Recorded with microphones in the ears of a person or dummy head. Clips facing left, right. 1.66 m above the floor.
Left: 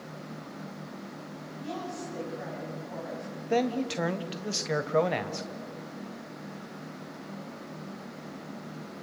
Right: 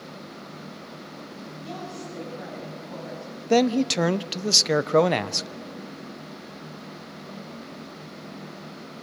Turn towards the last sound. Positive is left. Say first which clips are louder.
# right 7 dB
turn(degrees=-65)  # may be behind; listen again after turning